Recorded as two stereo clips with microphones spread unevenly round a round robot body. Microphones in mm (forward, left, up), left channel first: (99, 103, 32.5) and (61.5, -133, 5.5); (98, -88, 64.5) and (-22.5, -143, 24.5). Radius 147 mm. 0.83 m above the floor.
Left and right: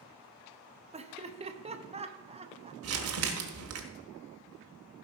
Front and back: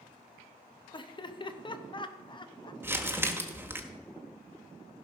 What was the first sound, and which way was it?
Laughter, 40° right.